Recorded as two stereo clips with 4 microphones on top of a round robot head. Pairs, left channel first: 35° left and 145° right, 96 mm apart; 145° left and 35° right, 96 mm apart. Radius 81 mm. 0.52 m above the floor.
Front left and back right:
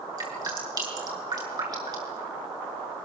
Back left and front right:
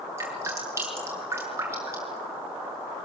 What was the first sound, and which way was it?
Dripping, 100° right.